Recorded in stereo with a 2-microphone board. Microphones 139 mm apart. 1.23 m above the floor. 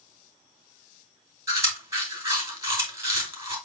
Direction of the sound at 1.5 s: 20° right (ahead or behind).